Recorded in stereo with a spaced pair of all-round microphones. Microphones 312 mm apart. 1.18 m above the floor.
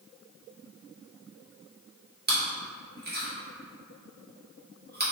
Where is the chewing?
30° right (ahead or behind), 1.5 m.